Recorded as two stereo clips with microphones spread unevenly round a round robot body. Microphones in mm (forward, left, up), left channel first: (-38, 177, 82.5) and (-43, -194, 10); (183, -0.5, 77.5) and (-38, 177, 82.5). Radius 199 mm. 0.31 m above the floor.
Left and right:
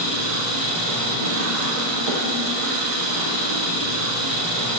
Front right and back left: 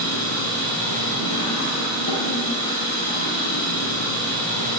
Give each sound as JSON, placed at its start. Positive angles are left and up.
{"t": 0.0, "sound": "an engine running", "azimuth_deg": -85, "distance_m": 6.0}